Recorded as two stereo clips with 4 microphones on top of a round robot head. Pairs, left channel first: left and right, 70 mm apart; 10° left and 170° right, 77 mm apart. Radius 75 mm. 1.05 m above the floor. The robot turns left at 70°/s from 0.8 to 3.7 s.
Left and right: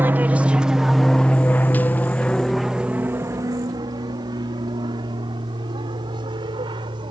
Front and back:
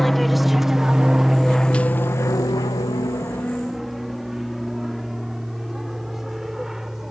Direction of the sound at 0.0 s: 75° right.